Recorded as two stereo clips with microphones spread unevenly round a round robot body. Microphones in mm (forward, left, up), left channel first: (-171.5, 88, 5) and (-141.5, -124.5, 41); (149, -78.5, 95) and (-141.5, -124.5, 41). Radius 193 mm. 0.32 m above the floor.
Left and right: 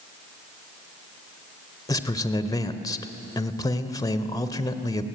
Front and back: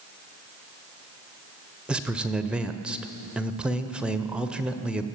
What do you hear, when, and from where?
1.9 s a man speaking: 125° left, 1.2 m